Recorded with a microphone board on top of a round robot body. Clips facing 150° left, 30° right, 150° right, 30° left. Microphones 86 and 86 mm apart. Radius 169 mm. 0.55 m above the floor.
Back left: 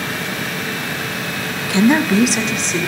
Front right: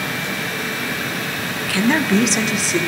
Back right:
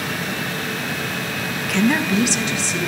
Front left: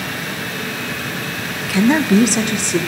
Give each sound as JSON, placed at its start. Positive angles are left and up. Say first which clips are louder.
{"t": 1.7, "sound": "a woman speaking", "louder": "back left 3 dB, front left 5 dB", "azimuth_deg": 120, "distance_m": 0.6}